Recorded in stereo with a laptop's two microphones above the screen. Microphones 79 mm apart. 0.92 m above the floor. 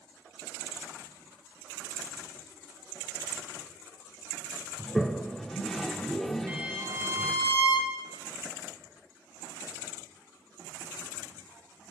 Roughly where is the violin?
Right.